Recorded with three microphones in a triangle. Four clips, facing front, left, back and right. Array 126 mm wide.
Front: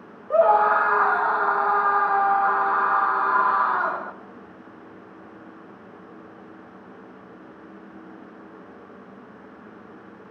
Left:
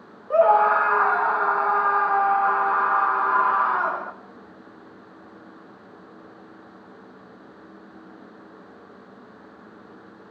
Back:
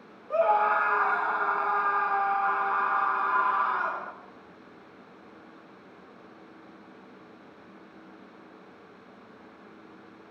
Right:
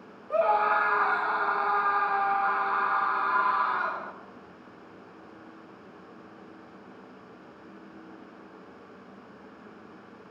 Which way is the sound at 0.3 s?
40° left.